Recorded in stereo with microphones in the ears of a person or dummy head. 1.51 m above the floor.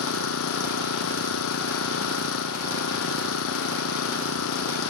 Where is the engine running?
85° left.